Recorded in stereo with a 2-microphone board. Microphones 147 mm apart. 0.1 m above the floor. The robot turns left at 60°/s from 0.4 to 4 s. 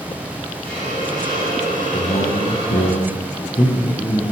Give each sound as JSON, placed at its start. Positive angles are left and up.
{"t": 0.6, "sound": "a hiss", "azimuth_deg": -40, "distance_m": 7.0}
{"t": 1.9, "sound": "a man speaking", "azimuth_deg": 135, "distance_m": 3.0}